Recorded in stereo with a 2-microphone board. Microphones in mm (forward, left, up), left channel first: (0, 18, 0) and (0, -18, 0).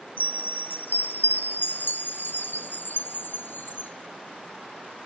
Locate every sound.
0.2 s a chime: 80° left, 0.6 m